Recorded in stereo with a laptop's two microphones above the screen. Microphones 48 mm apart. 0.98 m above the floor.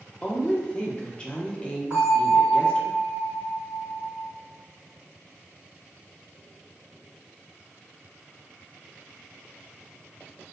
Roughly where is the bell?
Right.